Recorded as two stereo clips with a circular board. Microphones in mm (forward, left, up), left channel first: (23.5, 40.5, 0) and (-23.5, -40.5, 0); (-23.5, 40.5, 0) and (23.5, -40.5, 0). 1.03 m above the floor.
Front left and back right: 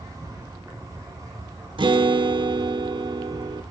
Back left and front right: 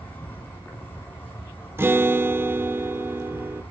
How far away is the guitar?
About 1.0 m.